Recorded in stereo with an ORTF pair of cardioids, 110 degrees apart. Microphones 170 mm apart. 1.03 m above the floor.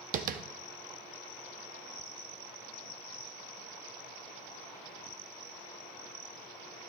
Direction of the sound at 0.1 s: 55° right.